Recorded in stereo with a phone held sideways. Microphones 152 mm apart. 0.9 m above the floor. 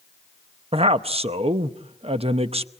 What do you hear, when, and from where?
0.7 s a man speaking: 45° right (ahead or behind), 0.8 m